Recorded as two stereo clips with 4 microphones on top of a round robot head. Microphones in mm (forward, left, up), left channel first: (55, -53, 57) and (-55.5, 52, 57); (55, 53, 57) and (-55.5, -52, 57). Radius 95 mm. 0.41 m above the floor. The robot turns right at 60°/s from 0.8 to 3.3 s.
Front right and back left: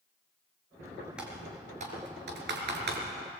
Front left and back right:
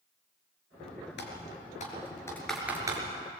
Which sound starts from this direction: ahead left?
Typing on a keyboard, at 1.2 s.